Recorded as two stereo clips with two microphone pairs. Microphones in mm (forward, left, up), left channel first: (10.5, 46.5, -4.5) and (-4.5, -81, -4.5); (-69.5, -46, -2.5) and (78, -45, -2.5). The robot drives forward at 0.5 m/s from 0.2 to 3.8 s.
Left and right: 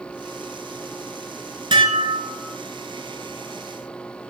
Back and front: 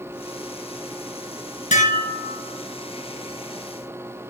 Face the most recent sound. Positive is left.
turn(degrees=-160)